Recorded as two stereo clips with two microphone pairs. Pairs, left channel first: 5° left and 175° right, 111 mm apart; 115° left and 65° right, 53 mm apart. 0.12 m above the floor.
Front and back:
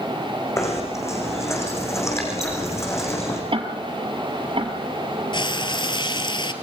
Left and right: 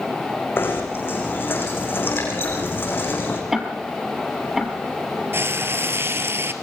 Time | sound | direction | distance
0.6 | knocking | 70° left | 5.5 m
3.5 | ticking | 145° right | 1.9 m
5.3 | frying | 30° right | 1.8 m